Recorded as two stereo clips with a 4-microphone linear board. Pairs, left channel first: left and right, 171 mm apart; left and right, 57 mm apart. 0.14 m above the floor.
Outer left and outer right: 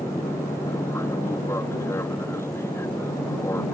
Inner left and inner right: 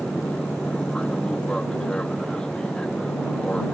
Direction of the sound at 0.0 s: 15° left (ahead or behind).